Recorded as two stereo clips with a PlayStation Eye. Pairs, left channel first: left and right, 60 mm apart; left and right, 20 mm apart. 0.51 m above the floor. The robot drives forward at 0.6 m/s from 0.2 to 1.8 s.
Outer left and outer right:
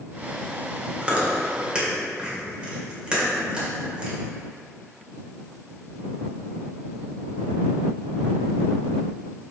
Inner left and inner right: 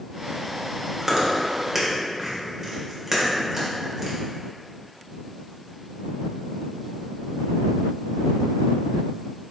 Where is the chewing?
20° right (ahead or behind), 1.6 m; by 4.2 s 15° right (ahead or behind), 1.9 m.